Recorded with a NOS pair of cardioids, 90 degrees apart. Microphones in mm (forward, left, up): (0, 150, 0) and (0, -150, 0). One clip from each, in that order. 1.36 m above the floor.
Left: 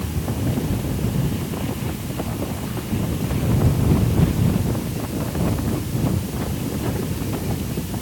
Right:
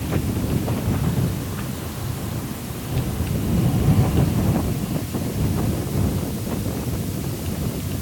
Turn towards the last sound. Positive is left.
No sound to turn to.